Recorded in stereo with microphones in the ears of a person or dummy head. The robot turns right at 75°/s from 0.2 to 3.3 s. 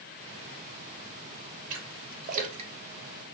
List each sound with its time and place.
1.7 s a splash: 50° right (ahead or behind), 0.7 m; by 3.3 s centre (ahead or behind), 0.7 m